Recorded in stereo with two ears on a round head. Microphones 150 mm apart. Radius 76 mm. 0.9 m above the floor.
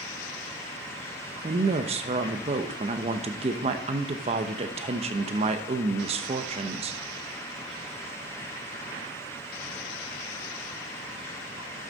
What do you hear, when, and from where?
1.4 s a woman speaking: 35° right (ahead or behind), 0.8 m